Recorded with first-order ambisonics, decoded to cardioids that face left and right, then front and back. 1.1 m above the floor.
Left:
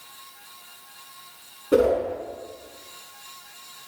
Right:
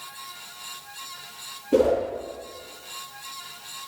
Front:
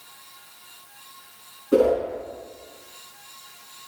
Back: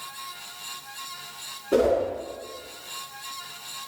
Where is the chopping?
No chopping in this recording.